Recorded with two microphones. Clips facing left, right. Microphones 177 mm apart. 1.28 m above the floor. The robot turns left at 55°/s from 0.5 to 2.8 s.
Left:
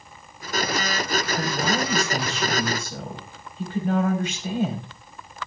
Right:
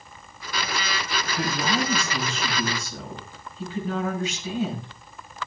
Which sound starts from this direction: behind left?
A man speaking, at 1.4 s.